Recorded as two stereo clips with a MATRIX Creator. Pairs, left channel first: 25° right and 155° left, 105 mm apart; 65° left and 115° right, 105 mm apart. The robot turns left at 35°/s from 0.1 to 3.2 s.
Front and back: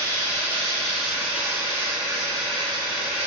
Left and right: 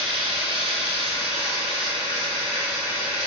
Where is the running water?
85° right, 1.1 m; by 3.3 s 165° left, 1.1 m.